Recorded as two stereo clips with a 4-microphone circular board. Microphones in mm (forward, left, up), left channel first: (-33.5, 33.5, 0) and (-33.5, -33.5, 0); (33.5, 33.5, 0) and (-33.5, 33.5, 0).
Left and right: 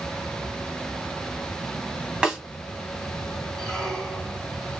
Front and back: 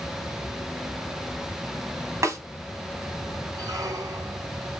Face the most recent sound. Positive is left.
turn(degrees=175)